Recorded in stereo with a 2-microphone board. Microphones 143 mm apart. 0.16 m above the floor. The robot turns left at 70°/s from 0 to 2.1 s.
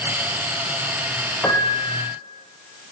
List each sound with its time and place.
1.4 s a piano: 165° left, 5 m; by 2.0 s 125° left, 5 m